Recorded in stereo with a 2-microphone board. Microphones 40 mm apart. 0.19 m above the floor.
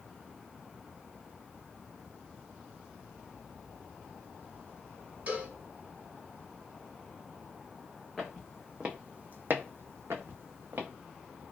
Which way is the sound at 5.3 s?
35° right (ahead or behind).